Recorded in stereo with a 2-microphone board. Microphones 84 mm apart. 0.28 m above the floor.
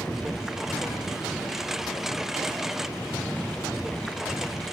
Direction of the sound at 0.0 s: 5° right (ahead or behind).